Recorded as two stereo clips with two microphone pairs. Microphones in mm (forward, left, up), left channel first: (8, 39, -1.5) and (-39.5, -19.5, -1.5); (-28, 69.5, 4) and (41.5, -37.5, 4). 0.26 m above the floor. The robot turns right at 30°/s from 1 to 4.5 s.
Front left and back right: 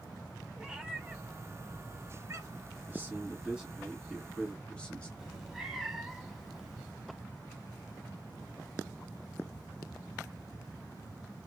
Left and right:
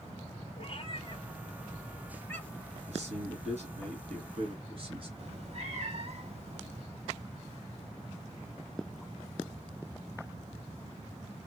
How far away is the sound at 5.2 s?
About 0.7 m.